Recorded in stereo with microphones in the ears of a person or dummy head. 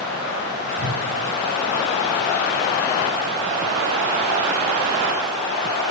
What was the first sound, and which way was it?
A whoosh, 35° left (ahead or behind).